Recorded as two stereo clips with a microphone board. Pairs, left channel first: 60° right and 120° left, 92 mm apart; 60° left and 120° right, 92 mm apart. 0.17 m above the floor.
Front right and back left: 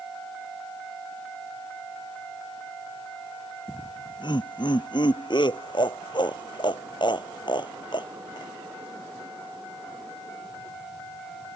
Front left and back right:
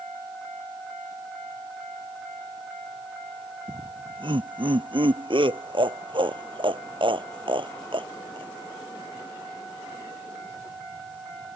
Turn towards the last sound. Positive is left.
turn(degrees=-95)